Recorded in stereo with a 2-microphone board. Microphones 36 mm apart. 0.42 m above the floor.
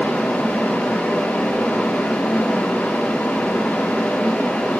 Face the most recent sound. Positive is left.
No sound to turn to.